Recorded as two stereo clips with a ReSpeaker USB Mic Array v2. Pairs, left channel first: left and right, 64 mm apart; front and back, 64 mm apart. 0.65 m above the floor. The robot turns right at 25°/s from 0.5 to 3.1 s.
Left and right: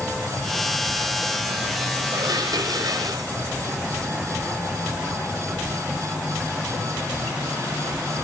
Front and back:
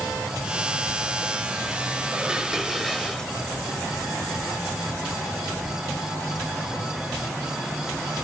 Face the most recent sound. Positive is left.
turn(degrees=-80)